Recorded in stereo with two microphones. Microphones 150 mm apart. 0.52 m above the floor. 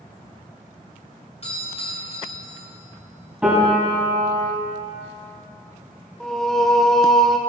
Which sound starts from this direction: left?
A doorbell, at 1.4 s.